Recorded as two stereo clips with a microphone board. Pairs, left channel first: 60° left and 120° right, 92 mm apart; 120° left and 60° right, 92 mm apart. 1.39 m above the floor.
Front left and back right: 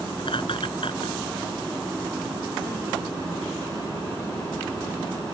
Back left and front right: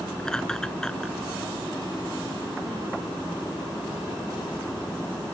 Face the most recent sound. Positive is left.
turn(degrees=35)